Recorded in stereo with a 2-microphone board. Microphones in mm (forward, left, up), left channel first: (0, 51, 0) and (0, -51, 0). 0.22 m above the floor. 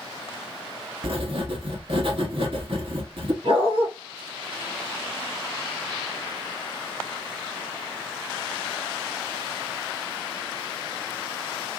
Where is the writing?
60° right (ahead or behind), 0.8 m.